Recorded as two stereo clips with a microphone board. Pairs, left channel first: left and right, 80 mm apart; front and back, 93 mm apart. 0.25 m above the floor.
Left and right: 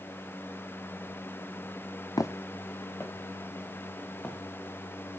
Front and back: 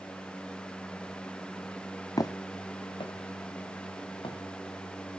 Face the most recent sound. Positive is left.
turn(degrees=25)